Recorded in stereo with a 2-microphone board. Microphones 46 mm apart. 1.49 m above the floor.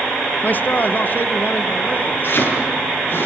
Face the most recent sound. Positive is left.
turn(degrees=45)  # may be behind; listen again after turning